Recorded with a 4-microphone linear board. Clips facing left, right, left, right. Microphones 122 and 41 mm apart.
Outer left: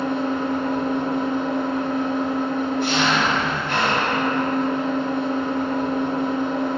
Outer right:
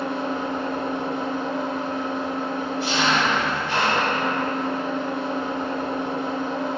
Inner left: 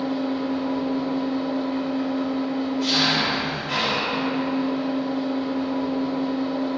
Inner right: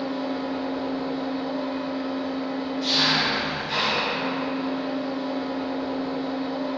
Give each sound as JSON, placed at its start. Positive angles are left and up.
{"t": 0.0, "sound": "an engine running", "side_deg": 55, "distance_m": 1.0}